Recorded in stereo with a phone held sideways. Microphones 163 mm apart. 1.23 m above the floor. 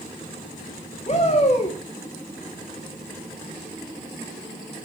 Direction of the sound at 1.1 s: 40° left (ahead or behind).